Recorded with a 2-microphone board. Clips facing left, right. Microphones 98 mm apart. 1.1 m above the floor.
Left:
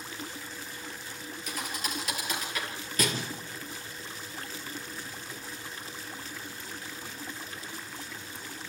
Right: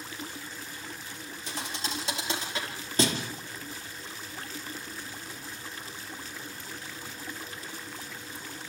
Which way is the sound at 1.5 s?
30° right (ahead or behind).